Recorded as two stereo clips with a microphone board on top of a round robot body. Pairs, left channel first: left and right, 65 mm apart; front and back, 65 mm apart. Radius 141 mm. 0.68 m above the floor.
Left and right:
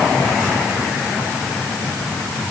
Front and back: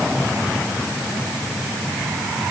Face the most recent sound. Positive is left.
No sound to turn to.